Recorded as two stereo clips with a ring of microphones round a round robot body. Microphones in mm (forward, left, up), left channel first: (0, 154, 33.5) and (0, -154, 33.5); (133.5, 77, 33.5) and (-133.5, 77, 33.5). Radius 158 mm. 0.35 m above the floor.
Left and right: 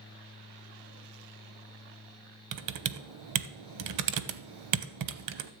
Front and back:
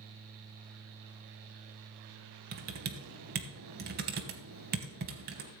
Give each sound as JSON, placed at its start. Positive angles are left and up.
{"t": 2.5, "sound": "typing on a keyboard", "azimuth_deg": -120, "distance_m": 0.8}